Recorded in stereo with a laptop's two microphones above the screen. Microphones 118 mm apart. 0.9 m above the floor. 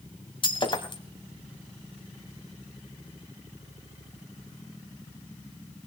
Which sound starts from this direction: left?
Breaking glass, at 0.4 s.